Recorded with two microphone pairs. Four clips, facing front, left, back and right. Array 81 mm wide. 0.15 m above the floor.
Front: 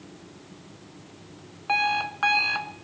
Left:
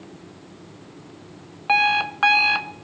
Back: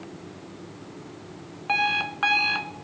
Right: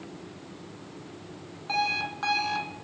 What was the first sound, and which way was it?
An alarm clock, 90° left.